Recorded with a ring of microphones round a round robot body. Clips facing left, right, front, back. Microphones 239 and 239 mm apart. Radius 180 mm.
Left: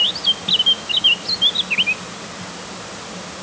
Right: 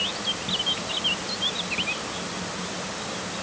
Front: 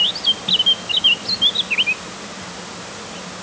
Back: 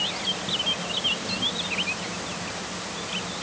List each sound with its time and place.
Only background noise.